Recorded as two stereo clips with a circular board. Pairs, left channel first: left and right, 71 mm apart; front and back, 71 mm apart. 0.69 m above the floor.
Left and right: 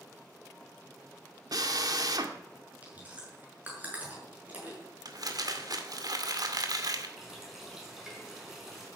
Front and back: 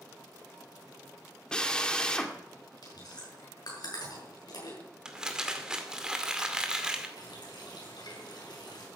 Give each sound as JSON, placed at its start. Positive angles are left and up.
{"t": 1.5, "sound": "a drill", "azimuth_deg": -80, "distance_m": 1.6}
{"t": 2.8, "sound": "chewing", "azimuth_deg": -25, "distance_m": 7.0}
{"t": 5.0, "sound": "crumpling", "azimuth_deg": -100, "distance_m": 2.0}
{"t": 7.2, "sound": "a running tap", "azimuth_deg": -5, "distance_m": 5.0}